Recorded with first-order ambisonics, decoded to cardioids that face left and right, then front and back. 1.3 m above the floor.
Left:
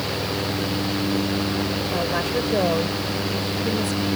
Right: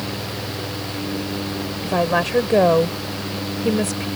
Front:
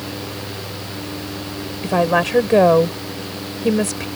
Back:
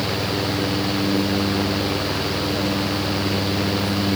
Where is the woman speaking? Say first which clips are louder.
Right 9 dB, front 6 dB; 25° right.